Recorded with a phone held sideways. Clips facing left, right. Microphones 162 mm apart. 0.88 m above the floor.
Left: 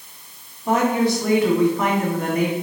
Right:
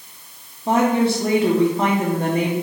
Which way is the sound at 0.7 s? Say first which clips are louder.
Right 1 dB; 30° right (ahead or behind).